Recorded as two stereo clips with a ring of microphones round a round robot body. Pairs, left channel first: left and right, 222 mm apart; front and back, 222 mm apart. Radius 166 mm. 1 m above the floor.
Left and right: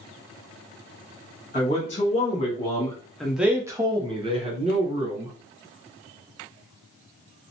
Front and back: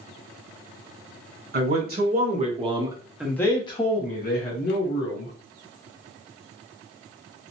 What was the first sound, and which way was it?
A man speaking, 145° left.